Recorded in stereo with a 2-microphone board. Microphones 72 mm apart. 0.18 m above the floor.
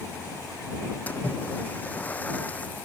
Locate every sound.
1.1 s a splash: 20° left (ahead or behind)